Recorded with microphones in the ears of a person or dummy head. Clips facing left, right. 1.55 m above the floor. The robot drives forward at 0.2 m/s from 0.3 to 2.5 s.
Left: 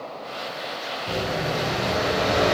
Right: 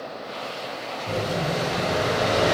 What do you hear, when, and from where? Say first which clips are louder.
1.1 s an explosion: right 1 dB; 5° right (ahead or behind), 1.2 m